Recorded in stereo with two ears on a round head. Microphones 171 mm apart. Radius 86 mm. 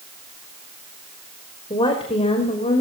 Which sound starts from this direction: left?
A woman speaking, at 1.7 s.